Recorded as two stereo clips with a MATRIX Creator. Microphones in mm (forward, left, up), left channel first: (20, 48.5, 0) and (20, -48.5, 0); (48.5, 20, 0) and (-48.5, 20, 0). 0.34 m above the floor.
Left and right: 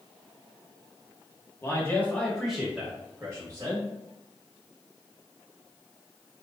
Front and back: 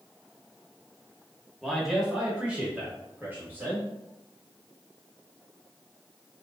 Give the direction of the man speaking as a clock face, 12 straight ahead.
9 o'clock.